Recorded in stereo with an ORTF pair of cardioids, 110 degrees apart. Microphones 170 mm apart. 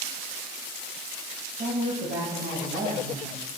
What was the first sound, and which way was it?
A woman speaking, 45° right.